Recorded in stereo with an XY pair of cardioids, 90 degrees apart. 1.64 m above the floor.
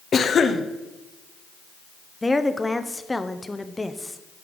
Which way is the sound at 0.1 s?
50° left.